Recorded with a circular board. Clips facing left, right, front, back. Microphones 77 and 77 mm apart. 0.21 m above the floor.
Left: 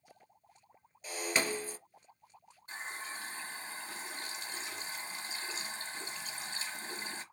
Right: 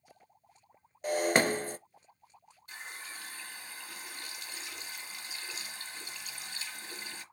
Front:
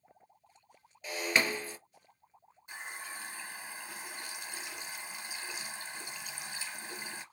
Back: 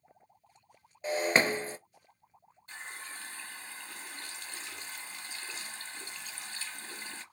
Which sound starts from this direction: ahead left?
A running tap, at 2.7 s.